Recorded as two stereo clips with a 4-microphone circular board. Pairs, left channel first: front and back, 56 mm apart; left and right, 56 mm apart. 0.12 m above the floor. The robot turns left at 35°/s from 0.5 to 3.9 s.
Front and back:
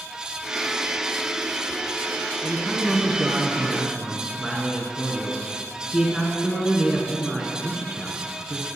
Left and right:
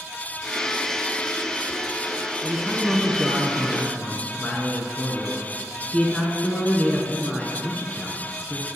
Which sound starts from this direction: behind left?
A man speaking, at 2.4 s.